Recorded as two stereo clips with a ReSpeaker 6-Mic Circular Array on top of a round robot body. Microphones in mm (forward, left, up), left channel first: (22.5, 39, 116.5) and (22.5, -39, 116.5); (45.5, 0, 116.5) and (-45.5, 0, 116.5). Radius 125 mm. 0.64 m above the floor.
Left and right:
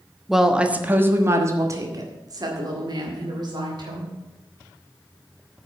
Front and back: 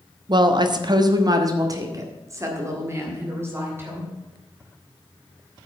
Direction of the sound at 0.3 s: Straight behind.